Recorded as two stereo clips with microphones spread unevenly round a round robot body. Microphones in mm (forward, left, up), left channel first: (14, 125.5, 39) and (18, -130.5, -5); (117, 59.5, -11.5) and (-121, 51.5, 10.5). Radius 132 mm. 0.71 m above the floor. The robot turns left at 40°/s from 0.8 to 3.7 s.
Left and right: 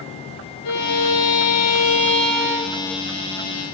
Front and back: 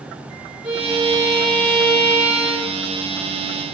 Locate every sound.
0.6 s a violin: 95° left, 8 m; by 3.0 s 10° left, 8 m